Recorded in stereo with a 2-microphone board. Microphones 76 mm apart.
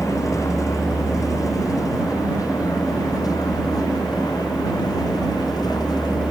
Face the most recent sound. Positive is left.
turn(degrees=55)  # may be behind; listen again after turning